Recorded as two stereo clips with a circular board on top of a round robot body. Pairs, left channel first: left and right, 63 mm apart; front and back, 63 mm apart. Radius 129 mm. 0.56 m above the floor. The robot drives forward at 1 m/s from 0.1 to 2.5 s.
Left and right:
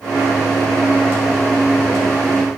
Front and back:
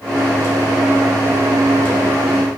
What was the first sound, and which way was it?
Only background noise.